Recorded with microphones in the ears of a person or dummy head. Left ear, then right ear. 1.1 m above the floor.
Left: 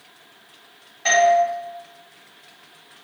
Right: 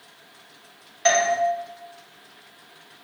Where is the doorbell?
30° right (ahead or behind), 0.7 m.